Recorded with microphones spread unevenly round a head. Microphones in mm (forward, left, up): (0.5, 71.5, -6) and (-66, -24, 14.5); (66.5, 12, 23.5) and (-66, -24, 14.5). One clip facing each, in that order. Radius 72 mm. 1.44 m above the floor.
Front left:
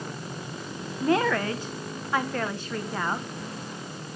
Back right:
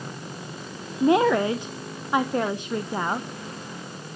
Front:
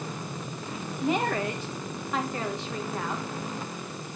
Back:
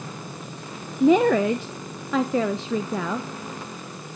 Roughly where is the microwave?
No microwave in this recording.